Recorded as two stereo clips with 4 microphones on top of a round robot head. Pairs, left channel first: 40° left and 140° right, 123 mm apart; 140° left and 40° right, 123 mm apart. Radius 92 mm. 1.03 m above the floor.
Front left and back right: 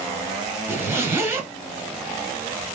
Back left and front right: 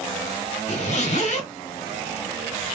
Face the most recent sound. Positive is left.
turn(degrees=150)